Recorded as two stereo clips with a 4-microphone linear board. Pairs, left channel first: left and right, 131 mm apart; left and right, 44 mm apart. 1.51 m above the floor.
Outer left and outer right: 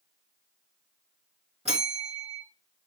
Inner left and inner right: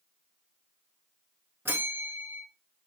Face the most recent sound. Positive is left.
turn(degrees=-55)  # may be behind; listen again after turning